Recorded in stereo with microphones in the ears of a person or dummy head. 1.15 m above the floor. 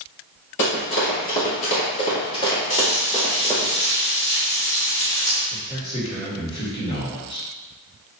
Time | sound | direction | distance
0.6 | running footsteps | 50° left (ahead or behind) | 1.6 m
2.7 | frying | 25° left (ahead or behind) | 1.0 m
5.5 | a man speaking | 40° left (ahead or behind) | 1.4 m